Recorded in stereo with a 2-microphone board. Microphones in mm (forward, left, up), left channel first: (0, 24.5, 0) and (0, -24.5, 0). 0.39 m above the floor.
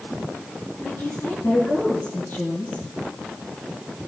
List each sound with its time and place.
0.8 s a woman speaking: 55° left (ahead or behind), 5.5 m; by 2.8 s 50° left (ahead or behind), 6.5 m